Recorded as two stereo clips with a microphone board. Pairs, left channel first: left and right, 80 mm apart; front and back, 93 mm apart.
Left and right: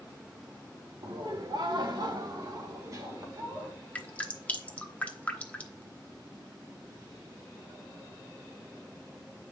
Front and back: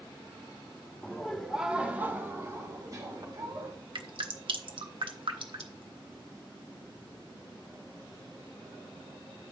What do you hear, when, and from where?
1.0 s laughter: 80° right, 1.8 m; by 3.7 s 145° right, 3 m
4.0 s dripping: 160° left, 1.0 m